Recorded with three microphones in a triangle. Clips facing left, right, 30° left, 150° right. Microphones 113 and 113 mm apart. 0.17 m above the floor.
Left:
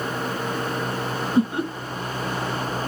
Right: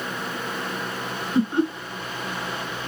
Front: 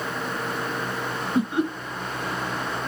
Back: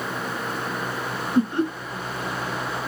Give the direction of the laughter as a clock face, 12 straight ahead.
1 o'clock.